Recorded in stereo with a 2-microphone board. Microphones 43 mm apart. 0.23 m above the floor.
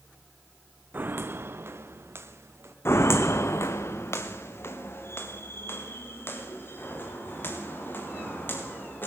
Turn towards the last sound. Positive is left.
turn(degrees=50)  # may be behind; listen again after turning